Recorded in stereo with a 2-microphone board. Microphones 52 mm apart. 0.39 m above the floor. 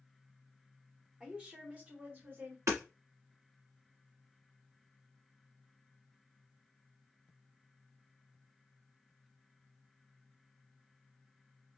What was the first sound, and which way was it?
A woman speaking, 15° right (ahead or behind).